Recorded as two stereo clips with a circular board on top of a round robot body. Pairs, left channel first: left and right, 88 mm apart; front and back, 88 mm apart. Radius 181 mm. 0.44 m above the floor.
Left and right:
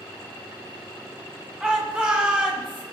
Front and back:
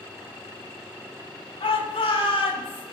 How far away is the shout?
About 7 m.